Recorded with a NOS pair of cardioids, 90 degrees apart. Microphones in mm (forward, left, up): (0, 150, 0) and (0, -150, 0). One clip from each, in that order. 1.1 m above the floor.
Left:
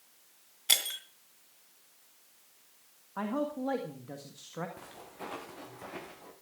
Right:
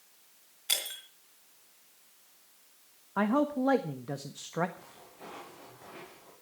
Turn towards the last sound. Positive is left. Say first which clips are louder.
# left 5 dB
turn(degrees=55)